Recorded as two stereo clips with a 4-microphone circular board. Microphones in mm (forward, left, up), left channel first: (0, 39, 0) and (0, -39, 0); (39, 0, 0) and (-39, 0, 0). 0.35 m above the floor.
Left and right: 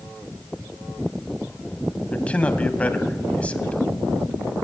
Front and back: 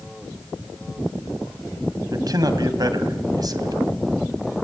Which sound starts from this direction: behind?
A man speaking, at 2.1 s.